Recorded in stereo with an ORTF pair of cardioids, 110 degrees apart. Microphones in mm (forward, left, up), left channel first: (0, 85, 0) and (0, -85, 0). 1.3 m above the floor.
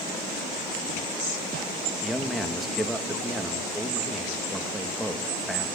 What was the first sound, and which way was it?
A man speaking, straight ahead.